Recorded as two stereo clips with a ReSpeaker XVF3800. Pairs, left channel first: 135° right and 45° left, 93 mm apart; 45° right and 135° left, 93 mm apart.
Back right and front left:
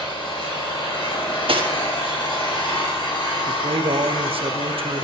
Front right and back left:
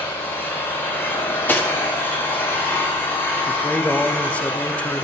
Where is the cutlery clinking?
25° left, 1.3 m.